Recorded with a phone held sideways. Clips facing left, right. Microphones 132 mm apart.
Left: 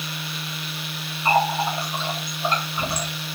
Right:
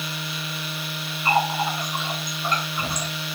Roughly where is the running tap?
Left.